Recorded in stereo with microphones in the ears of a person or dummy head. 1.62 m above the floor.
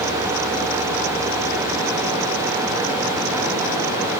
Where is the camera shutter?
I don't hear a camera shutter.